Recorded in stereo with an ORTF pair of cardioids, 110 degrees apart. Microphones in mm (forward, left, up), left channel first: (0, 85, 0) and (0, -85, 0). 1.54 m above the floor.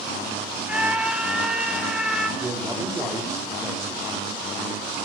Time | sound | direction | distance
0.7 | a scream | 5° right | 2.5 m
2.4 | a man speaking | 15° right | 3.5 m